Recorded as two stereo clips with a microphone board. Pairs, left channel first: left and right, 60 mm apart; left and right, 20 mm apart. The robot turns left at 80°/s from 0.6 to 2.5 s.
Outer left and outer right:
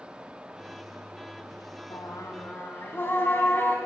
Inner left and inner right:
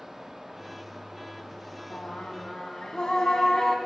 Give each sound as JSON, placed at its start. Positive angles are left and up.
{"t": 1.9, "sound": "singing", "azimuth_deg": 85, "distance_m": 1.5}